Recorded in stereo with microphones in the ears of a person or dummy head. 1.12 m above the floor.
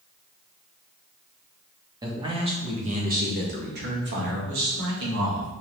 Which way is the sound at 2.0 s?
20° right (ahead or behind).